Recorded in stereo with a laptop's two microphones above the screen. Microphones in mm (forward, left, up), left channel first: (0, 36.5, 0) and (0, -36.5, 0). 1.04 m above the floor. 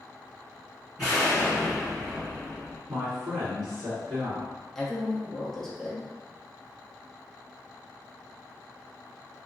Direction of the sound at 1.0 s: 5° left (ahead or behind).